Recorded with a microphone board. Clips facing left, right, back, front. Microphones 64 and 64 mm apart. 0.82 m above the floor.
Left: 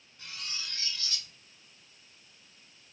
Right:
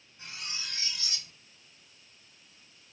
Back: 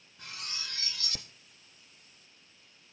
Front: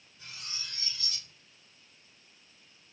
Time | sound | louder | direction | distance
0.2 | cutlery clinking | right 1 dB, back 3 dB | 160° right | 0.9 m